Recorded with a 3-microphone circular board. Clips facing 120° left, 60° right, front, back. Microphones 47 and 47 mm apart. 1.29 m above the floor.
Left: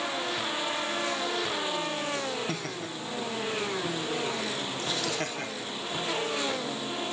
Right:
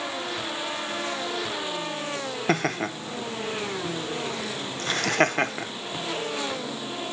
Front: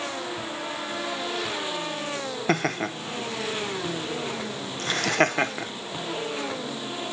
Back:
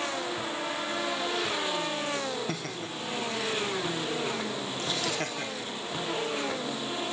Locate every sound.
2.5 s laughter: 30° right, 0.9 m